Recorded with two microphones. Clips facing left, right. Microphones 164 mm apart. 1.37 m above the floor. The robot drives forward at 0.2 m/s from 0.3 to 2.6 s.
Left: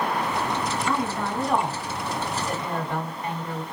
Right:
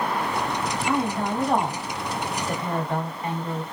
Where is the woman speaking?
20° right (ahead or behind), 1.4 m; by 3.6 s 15° right (ahead or behind), 1.7 m.